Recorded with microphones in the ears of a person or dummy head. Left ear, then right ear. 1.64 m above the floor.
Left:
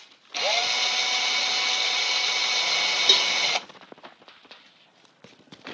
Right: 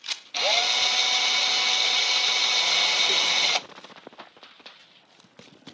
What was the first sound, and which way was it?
A drill, centre (ahead or behind).